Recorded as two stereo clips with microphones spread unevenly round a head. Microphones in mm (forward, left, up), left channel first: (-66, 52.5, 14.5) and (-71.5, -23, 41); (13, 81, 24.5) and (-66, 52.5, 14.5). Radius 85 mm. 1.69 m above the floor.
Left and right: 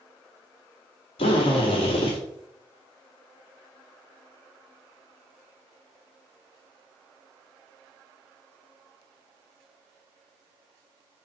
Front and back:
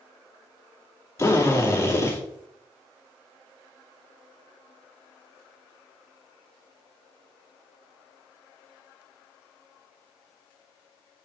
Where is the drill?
75° left, 2.5 m.